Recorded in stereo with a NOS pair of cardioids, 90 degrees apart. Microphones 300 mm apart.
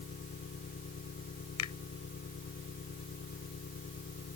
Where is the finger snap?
65° left.